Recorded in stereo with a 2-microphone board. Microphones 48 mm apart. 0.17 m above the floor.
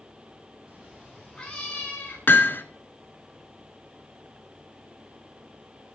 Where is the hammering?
45° left (ahead or behind), 0.5 m.